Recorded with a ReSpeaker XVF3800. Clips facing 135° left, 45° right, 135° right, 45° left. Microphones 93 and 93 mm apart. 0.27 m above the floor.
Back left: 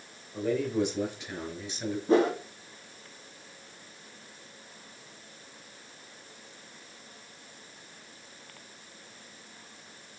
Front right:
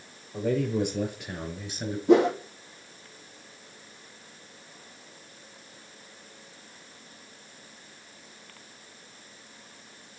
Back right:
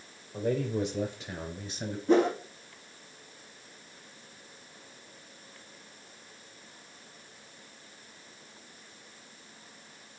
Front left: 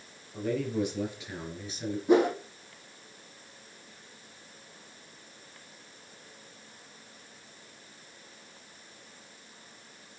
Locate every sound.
0.3 s a man speaking: 75° right, 4.5 m; by 2.0 s 90° right, 3 m
2.1 s a whoosh: 35° right, 2.5 m